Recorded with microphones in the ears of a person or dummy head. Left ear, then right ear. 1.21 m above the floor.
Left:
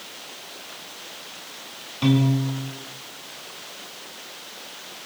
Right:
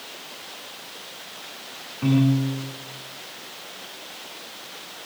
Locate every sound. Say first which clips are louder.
2.0 s a piano: even; 70° left (ahead or behind), 5 m